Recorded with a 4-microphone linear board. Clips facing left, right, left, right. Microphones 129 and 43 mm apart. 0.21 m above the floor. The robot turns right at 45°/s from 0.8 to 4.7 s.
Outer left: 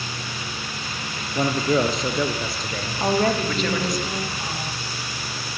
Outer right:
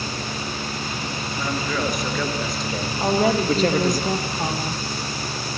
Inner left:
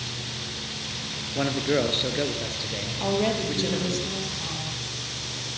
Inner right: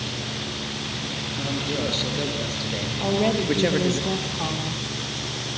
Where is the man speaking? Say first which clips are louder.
Outer left 6 dB, inner left 5 dB; 125° left, 4.5 m; by 4.0 s 115° right, 4.5 m.